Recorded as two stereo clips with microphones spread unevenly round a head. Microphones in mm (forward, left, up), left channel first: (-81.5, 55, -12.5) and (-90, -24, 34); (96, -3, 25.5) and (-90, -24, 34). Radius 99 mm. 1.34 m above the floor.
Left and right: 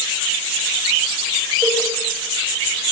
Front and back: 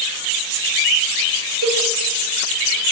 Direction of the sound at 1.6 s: 175° left.